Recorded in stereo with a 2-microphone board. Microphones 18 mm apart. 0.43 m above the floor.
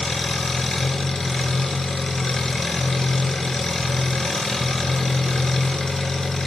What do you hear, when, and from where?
0.0 s an engine running: 35° left (ahead or behind), 2.5 m